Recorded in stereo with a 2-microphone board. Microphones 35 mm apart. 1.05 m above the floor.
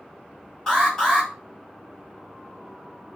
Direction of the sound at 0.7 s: 10° left (ahead or behind).